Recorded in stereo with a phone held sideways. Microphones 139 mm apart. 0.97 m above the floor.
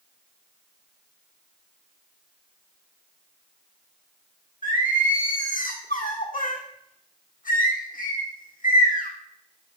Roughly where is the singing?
Left.